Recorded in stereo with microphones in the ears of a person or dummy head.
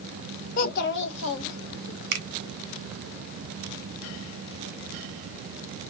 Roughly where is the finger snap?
Right.